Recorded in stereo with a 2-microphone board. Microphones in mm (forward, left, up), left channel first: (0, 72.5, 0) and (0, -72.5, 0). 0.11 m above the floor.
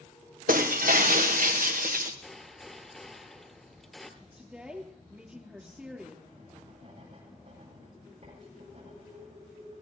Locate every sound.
0.5 s breaking glass: 75° right (ahead or behind), 1.6 m
2.2 s a gunshot: 5° left (ahead or behind), 1.3 m
4.2 s a woman speaking: 5° right (ahead or behind), 2.5 m
6.3 s writing: 50° right (ahead or behind), 8.5 m